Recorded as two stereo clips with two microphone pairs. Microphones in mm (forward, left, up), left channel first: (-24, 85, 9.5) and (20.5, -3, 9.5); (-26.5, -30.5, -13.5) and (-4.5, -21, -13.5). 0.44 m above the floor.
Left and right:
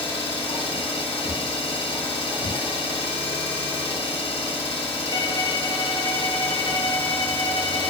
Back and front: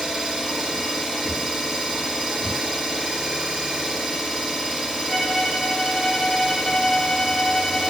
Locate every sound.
0.0 s an engine running: 85° left, 1.6 m
2.4 s breathing: 80° left, 1.0 m
5.1 s a violin: 105° left, 0.9 m